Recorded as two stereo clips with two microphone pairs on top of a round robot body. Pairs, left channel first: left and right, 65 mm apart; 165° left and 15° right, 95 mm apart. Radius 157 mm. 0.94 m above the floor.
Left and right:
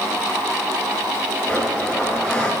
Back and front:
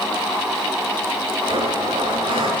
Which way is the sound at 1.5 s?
15° left.